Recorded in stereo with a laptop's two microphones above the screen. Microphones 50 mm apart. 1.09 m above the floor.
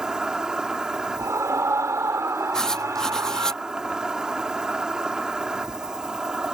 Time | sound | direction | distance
0.0 | an insect | 15° right (ahead or behind) | ?
1.2 | a scream | 75° right (ahead or behind) | ?
2.5 | writing | 10° left (ahead or behind) | ?